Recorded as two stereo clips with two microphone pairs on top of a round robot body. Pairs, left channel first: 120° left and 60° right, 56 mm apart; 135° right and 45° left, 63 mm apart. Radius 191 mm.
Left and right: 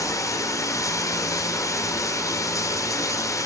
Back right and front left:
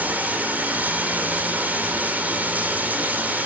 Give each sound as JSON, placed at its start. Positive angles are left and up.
{"t": 0.0, "sound": "running water", "azimuth_deg": 110, "distance_m": 2.0}